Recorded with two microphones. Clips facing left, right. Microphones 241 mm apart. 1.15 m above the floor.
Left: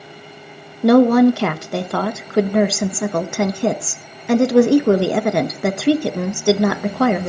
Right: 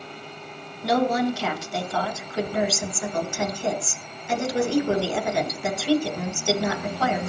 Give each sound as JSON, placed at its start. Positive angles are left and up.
{"t": 0.8, "sound": "a woman speaking", "side_deg": 75, "distance_m": 0.9}